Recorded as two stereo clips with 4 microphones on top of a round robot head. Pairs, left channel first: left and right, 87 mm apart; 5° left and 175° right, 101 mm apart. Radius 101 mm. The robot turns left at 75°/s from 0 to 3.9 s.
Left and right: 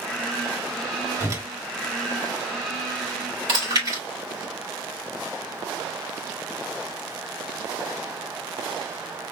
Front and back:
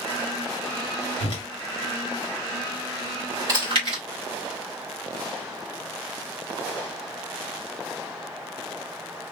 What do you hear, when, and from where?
1.2 s a whoosh: 30° right, 1.9 m; by 1.4 s 50° right, 1.9 m
3.5 s chewing: 115° right, 3.5 m; by 4.0 s 145° right, 3.5 m